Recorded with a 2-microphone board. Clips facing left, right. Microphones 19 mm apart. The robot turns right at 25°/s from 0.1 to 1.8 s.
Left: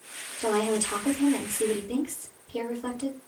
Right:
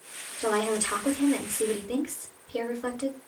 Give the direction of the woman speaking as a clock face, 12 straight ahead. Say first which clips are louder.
Left 1 dB; 4 o'clock.